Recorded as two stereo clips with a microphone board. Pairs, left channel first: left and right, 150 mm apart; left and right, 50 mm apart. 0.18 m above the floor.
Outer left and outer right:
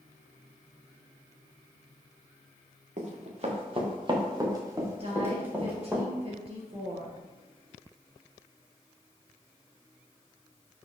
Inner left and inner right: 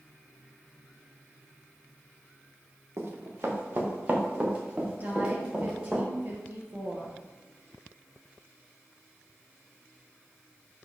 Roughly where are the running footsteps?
Right.